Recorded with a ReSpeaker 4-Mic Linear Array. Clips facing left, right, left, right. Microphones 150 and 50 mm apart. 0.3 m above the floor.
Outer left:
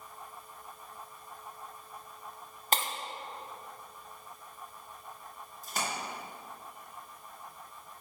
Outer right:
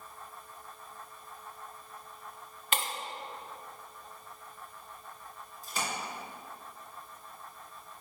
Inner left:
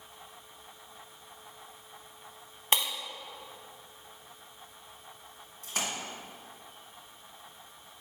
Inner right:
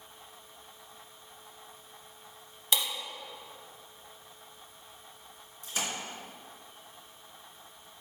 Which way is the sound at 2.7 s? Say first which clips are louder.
Outer left 2 dB, inner left 2 dB; 40° left (ahead or behind).